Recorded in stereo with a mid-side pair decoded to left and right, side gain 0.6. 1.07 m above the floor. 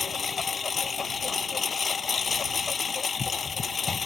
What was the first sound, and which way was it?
A lawn mower, 30° left.